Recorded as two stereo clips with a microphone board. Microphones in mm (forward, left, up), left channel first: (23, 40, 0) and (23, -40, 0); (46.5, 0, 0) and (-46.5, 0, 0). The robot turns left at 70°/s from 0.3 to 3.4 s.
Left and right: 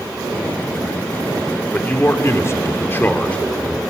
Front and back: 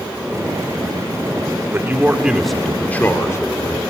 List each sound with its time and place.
1.7 s a man speaking: 140° left, 1.3 m; by 3.8 s 25° left, 1.3 m